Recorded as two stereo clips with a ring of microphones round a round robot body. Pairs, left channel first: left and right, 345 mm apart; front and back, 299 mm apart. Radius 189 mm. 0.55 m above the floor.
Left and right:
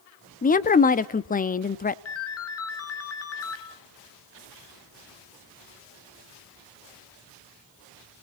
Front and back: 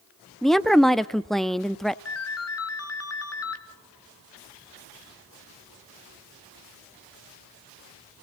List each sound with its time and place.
0.4 s a woman speaking: 85° left, 0.8 m
2.0 s a ringtone: 40° left, 2.5 m